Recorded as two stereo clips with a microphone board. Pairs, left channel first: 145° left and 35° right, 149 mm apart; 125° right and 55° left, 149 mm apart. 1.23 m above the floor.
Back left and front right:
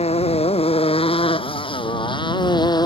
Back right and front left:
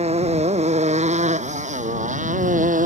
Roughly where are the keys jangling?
I don't hear keys jangling.